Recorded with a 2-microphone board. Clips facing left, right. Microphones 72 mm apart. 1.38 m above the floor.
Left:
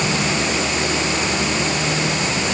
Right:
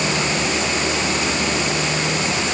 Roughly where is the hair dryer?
No hair dryer in this recording.